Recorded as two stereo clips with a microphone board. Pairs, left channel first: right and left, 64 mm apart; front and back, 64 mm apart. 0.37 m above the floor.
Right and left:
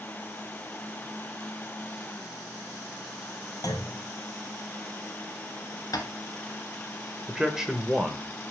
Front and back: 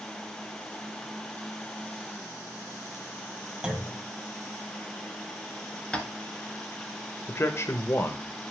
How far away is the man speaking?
About 1.0 m.